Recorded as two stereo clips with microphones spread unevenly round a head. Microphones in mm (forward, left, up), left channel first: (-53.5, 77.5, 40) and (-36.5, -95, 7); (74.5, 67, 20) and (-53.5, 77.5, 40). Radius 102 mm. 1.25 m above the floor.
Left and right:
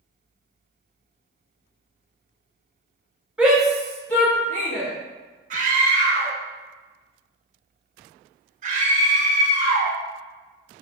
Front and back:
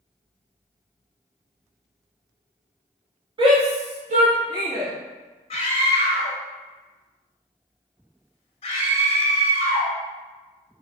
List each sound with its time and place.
3.4 s a shout: 150° right, 0.7 m; by 4.9 s 170° left, 1.2 m
5.5 s a scream: 45° right, 1.0 m